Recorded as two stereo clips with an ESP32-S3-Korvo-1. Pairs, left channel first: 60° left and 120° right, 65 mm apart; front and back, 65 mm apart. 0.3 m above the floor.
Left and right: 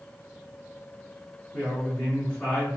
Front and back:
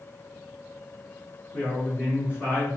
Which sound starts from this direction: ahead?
A woman speaking, at 1.5 s.